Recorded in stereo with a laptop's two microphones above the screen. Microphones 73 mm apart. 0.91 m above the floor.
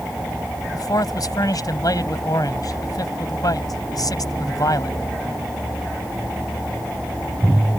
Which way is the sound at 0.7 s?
60° left (ahead or behind).